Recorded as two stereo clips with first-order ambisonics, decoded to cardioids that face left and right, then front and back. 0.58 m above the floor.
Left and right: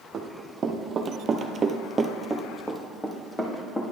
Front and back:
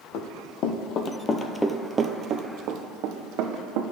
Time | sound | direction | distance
0.1 | running footsteps | 25° right | 1.2 m